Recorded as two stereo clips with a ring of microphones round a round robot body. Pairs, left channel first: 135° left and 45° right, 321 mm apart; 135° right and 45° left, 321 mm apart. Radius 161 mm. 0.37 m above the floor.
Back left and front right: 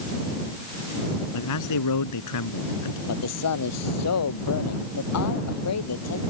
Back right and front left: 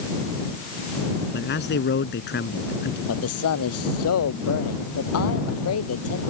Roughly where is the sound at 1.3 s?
Behind.